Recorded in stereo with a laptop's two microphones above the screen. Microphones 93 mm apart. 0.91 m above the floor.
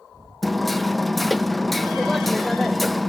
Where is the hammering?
Centre (ahead or behind), 0.6 m.